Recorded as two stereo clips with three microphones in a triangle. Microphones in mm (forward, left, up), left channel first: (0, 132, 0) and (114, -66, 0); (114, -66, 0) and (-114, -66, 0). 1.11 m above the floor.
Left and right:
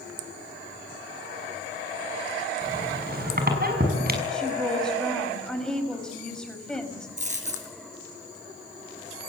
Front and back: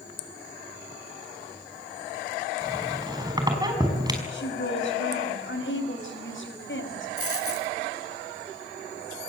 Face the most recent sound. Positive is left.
turn(degrees=0)